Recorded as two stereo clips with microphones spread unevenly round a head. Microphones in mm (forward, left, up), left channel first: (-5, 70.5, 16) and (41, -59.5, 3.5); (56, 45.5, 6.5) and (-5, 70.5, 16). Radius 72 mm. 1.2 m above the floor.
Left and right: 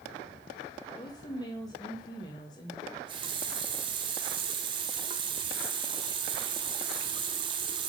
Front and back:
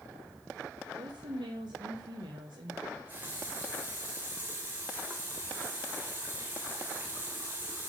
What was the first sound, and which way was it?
A woman speaking, 175° left.